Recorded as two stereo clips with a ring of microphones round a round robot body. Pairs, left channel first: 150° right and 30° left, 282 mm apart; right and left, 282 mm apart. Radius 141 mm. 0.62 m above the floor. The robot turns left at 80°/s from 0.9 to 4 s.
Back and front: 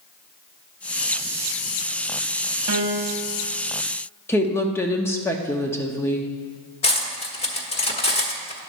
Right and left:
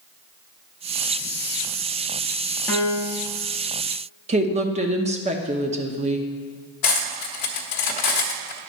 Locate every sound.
2.7 s a piano: 10° right, 0.9 m; by 3.3 s 55° right, 0.9 m
4.3 s a woman speaking: 135° left, 0.7 m
6.8 s cutlery clinking: 80° right, 1.0 m